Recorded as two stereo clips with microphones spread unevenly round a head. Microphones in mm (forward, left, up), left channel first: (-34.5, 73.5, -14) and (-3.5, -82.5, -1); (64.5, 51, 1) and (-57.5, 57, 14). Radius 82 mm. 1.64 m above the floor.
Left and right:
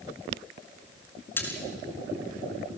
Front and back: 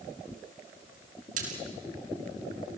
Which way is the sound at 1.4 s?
Straight behind.